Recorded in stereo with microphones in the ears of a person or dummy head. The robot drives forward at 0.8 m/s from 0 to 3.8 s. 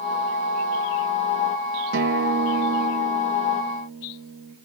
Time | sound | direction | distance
1.9 | a guitar | 65° right (ahead or behind) | 1.3 m